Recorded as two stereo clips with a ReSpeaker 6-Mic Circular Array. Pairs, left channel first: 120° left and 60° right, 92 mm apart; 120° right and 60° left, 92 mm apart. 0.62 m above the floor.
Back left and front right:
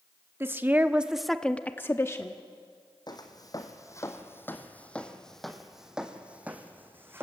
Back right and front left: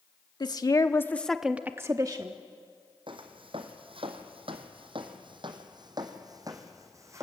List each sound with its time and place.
0.4 s a woman speaking: 115° right, 1.0 m; by 2.4 s 75° left, 1.0 m
3.1 s footsteps: 80° left, 2 m; by 7.2 s 5° left, 2.5 m